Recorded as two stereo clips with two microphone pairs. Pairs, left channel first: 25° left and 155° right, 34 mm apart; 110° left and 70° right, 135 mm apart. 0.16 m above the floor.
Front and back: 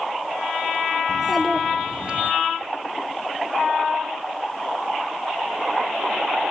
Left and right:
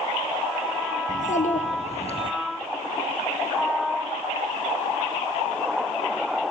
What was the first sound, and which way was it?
A child speaking, 110° left.